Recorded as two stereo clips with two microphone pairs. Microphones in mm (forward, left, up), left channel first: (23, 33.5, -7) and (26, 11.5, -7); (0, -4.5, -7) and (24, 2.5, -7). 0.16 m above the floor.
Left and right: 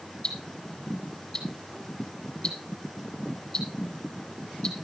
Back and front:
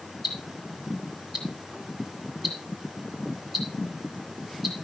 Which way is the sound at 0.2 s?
90° left.